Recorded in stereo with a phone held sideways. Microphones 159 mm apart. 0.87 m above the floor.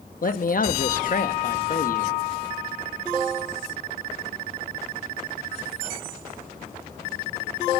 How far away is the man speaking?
About 0.8 m.